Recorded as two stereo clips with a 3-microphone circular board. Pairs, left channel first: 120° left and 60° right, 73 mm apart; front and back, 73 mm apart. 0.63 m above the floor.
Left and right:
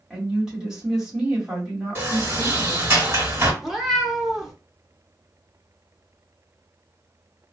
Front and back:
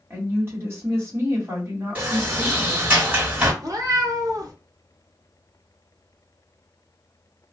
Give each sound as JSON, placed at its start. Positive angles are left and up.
{"t": 0.1, "sound": "a woman speaking", "azimuth_deg": -140, "distance_m": 1.6}
{"t": 1.9, "sound": "a sliding door", "azimuth_deg": -115, "distance_m": 1.3}
{"t": 3.6, "sound": "a cat meowing", "azimuth_deg": -145, "distance_m": 0.7}